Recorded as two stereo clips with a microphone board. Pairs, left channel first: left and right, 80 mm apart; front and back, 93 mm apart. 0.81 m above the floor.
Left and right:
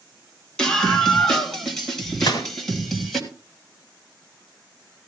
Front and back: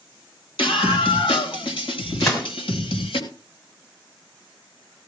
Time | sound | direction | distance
0.6 | a scream | 10° left | 3 m
2.2 | a gunshot | 55° left | 2 m